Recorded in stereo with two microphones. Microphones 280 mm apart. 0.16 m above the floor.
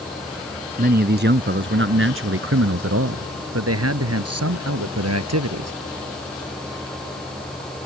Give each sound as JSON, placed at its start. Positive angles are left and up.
{"t": 0.8, "sound": "a man speaking", "side_deg": -35}